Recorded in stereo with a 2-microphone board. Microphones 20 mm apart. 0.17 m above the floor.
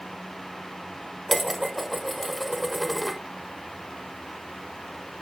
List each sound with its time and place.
1.3 s dishes clattering: centre (ahead or behind), 1.1 m